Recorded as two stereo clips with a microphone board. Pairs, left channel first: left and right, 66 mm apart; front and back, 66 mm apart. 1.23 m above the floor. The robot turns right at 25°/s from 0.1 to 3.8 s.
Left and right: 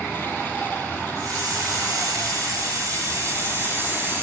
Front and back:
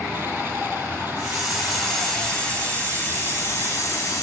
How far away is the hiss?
About 4 m.